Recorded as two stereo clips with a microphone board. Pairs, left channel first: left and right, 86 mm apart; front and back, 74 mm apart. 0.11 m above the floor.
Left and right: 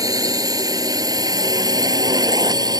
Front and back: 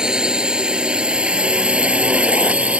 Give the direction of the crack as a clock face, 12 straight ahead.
I don't hear a crack.